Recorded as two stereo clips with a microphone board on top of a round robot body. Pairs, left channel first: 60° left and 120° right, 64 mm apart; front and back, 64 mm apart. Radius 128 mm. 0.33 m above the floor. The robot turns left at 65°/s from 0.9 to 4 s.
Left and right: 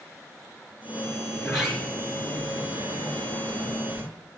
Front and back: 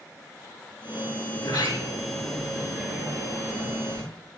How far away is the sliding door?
About 4 m.